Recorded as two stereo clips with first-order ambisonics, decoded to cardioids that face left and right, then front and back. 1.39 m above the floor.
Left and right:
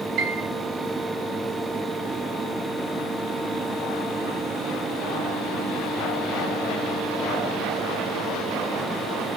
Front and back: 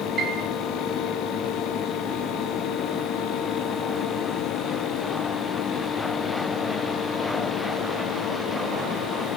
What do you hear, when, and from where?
0.2 s a piano: 125° right, 4.5 m